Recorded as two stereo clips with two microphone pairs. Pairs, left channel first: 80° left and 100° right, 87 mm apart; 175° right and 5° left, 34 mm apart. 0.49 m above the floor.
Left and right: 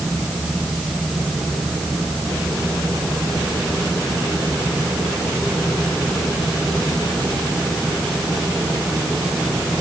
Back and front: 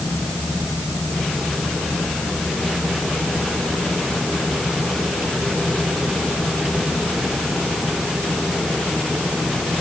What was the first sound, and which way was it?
Only background noise.